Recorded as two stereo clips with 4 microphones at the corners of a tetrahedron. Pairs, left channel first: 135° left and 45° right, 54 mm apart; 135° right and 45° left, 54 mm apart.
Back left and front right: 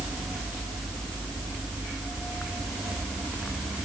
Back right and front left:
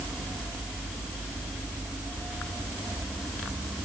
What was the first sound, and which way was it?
Only background noise.